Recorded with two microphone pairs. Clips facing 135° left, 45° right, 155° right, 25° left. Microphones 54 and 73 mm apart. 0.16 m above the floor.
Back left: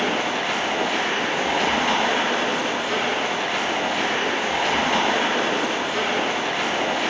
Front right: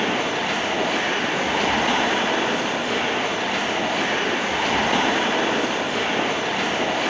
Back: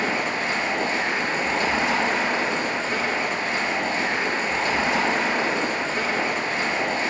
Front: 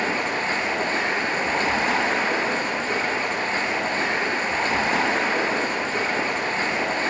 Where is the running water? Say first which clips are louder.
Even, even; 45° left, 1.2 m.